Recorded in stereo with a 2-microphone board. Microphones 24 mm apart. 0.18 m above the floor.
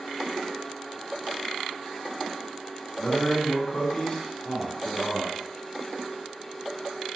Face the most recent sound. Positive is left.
turn(degrees=30)  # may be behind; listen again after turning